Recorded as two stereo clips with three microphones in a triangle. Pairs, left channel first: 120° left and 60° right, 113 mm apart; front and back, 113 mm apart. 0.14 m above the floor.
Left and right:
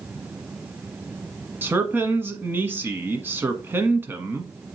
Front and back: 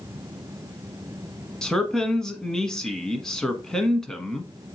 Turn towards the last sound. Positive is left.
turn(degrees=-75)